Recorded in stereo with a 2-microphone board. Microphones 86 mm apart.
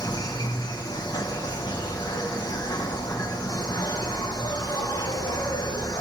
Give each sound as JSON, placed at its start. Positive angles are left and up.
{"t": 0.0, "sound": "an insect", "side_deg": 50, "distance_m": 1.4}